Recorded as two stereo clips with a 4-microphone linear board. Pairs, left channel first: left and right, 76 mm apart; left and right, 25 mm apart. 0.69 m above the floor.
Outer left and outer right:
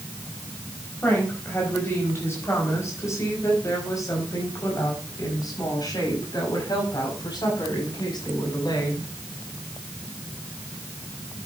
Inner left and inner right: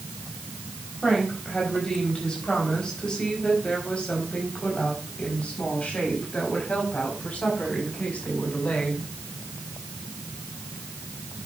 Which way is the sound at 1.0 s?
25° left (ahead or behind).